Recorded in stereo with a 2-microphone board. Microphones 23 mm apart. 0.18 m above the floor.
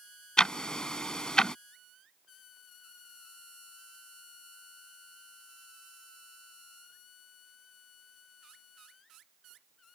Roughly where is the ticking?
Left.